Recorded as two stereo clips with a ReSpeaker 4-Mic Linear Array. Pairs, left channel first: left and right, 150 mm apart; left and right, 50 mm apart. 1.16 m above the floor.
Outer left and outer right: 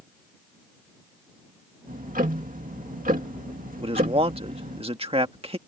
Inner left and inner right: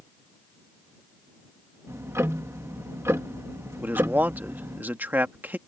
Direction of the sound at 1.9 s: 75° right (ahead or behind).